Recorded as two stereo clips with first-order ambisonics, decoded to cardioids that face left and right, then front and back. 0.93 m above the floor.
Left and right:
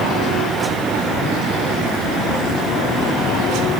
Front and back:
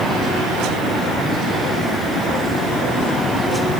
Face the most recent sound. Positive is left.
No sound to turn to.